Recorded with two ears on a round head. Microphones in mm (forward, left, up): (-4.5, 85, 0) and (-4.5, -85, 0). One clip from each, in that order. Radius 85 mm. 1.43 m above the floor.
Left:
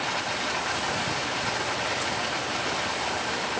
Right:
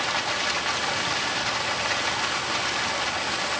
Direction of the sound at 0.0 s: 35° right (ahead or behind).